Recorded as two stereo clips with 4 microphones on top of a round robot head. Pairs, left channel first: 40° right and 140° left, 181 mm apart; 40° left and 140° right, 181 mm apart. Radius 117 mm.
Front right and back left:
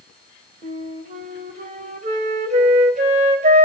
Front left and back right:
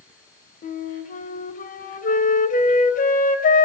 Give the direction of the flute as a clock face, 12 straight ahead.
9 o'clock.